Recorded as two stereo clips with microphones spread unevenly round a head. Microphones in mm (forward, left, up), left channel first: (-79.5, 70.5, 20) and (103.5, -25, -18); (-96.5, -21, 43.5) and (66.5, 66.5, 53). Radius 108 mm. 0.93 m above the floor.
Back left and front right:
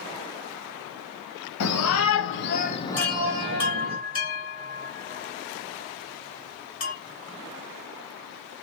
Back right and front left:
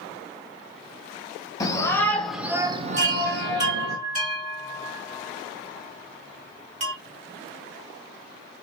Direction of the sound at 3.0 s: 85° left.